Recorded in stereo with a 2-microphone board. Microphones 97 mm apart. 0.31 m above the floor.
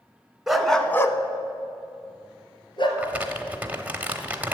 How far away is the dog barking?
About 1.0 m.